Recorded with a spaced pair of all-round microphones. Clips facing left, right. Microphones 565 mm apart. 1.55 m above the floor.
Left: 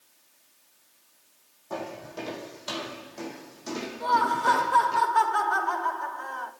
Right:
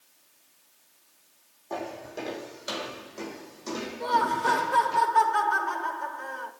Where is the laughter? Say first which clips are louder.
Right 1 dB; 50° right (ahead or behind), 5.5 m.